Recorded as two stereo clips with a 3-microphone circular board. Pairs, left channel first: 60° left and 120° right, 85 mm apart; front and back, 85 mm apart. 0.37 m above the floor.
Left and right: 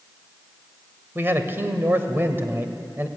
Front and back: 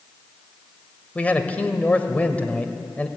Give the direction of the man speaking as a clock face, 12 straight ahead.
2 o'clock.